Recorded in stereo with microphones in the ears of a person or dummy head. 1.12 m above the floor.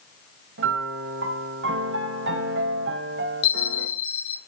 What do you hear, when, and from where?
0.6 s a piano: 55° right (ahead or behind), 1.4 m
3.4 s a bell: 50° left (ahead or behind), 5.5 m